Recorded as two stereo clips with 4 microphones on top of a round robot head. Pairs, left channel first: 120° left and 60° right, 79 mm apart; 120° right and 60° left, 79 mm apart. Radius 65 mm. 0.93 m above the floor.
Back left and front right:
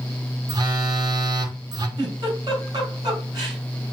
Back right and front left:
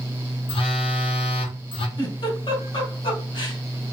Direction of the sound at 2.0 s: 95° right.